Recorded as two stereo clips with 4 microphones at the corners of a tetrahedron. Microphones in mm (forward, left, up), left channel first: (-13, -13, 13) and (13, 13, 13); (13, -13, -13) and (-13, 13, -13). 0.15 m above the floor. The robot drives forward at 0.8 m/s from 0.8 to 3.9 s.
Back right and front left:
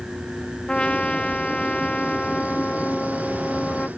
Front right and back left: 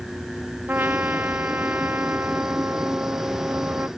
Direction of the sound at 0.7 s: 165° left.